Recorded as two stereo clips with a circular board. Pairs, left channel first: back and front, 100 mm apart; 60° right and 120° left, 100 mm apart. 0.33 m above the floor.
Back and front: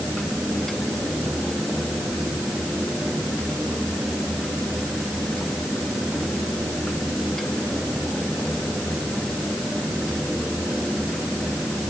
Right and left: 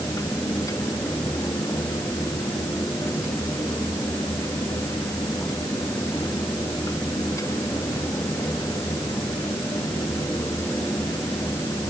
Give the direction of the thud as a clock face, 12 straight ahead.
I don't hear a thud.